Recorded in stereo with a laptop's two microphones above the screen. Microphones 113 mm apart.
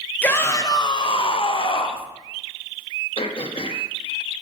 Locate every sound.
0.2 s a shout: 15° left (ahead or behind), 0.7 m; by 2.1 s 50° left (ahead or behind), 1.1 m
3.2 s throat clearing: 55° left (ahead or behind), 0.8 m